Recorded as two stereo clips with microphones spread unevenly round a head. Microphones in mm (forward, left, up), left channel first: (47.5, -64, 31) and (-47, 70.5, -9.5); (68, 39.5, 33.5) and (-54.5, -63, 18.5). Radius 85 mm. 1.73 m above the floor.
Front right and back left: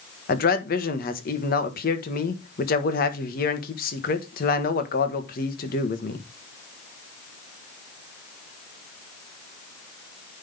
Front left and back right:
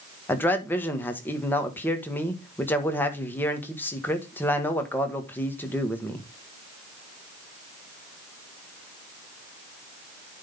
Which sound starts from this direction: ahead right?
A man speaking, at 0.3 s.